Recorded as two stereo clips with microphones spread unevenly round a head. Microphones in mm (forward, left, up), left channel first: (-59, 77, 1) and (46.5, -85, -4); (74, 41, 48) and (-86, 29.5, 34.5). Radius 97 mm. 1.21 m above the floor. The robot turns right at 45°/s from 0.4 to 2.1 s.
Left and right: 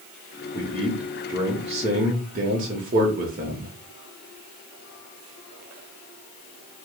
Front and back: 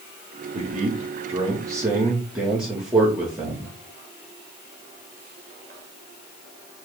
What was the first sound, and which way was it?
A man speaking, 165° right.